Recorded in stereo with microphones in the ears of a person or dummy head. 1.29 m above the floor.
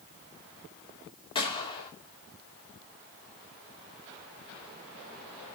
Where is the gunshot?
25° left (ahead or behind), 2.5 m.